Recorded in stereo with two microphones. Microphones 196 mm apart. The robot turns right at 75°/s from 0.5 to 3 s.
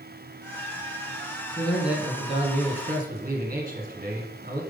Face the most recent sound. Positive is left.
turn(degrees=-90)